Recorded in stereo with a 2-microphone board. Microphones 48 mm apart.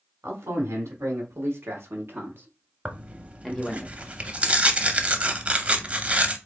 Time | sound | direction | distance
0.2 | a man speaking | 70° right (ahead or behind) | 2.0 m
2.9 | tearing paper | 30° right (ahead or behind) | 0.6 m